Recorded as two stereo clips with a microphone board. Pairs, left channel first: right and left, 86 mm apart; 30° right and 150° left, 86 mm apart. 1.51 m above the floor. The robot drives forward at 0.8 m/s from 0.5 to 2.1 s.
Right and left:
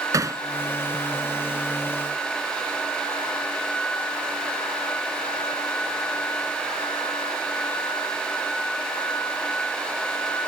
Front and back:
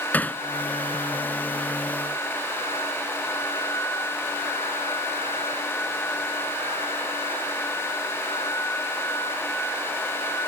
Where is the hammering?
40° left.